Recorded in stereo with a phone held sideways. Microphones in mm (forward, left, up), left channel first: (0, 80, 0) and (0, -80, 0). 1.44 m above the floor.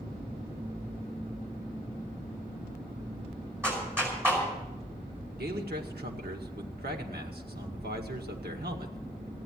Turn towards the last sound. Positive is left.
turn(degrees=-80)